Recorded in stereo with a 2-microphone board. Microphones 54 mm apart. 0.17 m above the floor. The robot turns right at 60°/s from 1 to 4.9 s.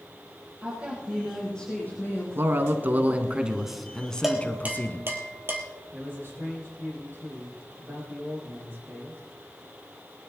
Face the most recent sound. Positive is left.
turn(degrees=-50)  # may be behind; listen again after turning